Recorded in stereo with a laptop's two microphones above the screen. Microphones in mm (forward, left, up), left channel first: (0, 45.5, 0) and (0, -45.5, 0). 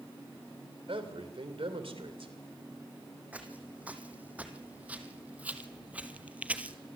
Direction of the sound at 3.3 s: 15° right (ahead or behind).